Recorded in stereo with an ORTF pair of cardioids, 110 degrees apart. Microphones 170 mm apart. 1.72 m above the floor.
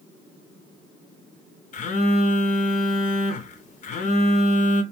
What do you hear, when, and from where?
1.7 s a phone buzzing: 50° left, 0.7 m